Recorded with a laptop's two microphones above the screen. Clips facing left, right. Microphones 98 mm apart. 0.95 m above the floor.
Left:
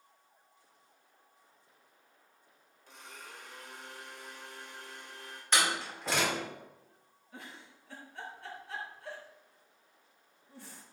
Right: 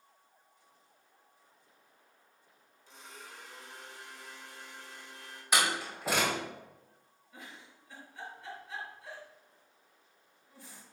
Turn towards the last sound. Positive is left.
turn(degrees=80)